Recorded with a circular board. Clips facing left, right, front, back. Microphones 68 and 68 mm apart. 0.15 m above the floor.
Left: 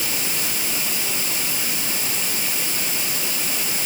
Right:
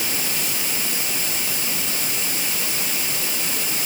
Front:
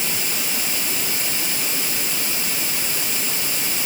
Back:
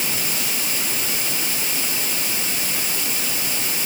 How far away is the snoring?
I don't hear snoring.